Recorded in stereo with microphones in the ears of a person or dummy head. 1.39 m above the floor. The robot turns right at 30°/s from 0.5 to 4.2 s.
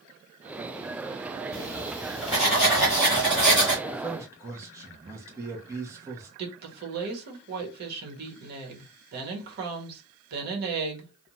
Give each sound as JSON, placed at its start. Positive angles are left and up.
{"t": 1.5, "sound": "writing", "azimuth_deg": 145, "distance_m": 1.5}
{"t": 3.9, "sound": "a man speaking", "side_deg": -30, "distance_m": 0.8}
{"t": 6.4, "sound": "a woman speaking", "side_deg": -55, "distance_m": 1.1}